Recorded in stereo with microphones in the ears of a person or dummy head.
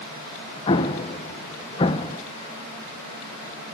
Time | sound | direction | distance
0.7 | an explosion | 25° left (ahead or behind) | 1.2 m